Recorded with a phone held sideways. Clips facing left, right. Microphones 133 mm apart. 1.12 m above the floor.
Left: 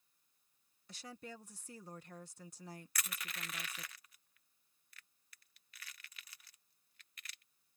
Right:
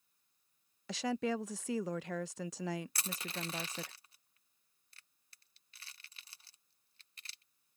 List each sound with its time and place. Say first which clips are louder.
0.9 s a woman speaking: right 16 dB; 80° right
3.0 s crushing: right 5 dB; 30° right (ahead or behind)